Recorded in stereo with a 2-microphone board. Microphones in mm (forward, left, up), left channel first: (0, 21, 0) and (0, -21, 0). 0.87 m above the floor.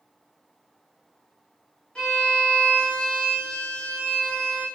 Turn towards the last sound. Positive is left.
turn(degrees=25)  # may be behind; listen again after turning